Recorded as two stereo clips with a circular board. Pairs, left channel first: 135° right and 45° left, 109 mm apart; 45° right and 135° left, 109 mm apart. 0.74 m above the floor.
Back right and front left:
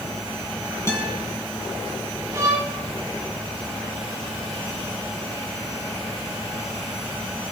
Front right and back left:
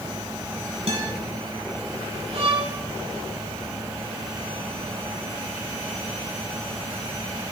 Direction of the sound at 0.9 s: 160° left.